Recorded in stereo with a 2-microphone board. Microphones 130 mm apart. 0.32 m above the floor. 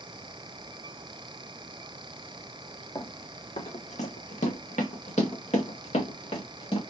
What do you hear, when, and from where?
3.0 s running footsteps: 30° left (ahead or behind), 0.9 m; by 6.8 s 45° left (ahead or behind), 2.0 m